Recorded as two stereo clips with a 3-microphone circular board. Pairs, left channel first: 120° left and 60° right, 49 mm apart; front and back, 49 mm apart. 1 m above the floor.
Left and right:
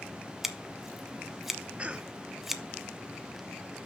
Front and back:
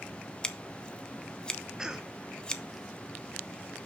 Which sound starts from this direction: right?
A cough, at 1.8 s.